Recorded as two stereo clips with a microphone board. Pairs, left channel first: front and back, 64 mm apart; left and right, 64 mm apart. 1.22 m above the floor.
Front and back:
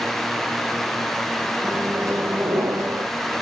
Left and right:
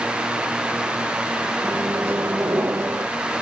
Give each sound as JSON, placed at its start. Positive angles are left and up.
{"t": 1.6, "sound": "a microwave", "azimuth_deg": -140, "distance_m": 0.9}